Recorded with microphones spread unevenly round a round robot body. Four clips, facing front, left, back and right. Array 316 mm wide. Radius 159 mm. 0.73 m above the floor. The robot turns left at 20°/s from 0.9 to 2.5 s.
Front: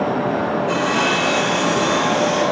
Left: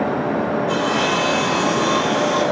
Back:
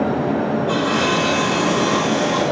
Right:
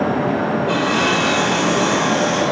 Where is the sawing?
115° right, 6.5 m; by 2.4 s 145° right, 6.5 m.